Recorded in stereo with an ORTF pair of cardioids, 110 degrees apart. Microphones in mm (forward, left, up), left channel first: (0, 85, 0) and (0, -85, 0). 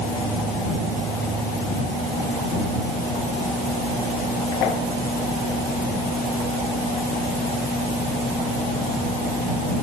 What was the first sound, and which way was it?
Only background noise.